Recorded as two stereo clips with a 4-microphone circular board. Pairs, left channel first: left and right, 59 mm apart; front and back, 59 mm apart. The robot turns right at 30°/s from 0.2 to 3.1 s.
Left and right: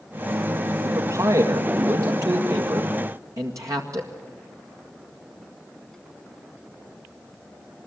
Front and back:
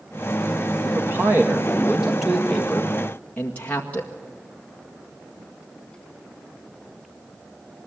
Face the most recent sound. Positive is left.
turn(degrees=-65)